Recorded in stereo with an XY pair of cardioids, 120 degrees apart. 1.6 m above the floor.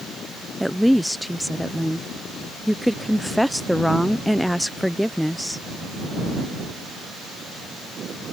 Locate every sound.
0.6 s a woman speaking: straight ahead